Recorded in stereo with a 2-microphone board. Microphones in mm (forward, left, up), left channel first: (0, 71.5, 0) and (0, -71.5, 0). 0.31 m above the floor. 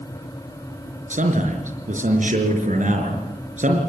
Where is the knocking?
I don't hear knocking.